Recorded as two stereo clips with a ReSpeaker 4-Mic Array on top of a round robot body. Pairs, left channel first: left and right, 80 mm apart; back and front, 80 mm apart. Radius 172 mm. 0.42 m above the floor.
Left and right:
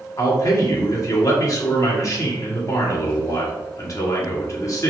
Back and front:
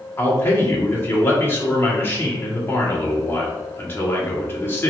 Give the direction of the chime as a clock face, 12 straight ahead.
No chime in this recording.